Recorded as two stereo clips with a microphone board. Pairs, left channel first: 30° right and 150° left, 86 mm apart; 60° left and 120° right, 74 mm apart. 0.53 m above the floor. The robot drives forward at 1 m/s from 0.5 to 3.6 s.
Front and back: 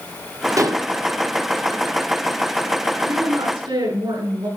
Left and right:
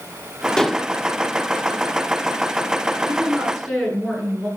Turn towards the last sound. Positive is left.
turn(degrees=150)